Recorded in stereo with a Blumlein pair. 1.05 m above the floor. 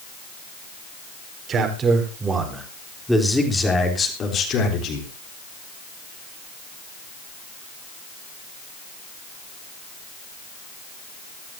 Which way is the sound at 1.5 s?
25° right.